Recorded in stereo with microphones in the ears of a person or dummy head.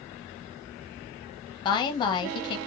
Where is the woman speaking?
25° left (ahead or behind), 0.8 m.